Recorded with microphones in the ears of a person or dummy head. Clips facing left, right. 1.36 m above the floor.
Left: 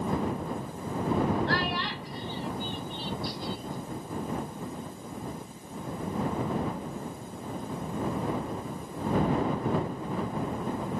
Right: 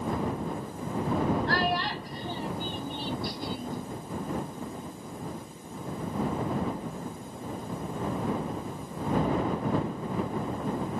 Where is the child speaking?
50° right (ahead or behind); by 3.8 s 60° right (ahead or behind).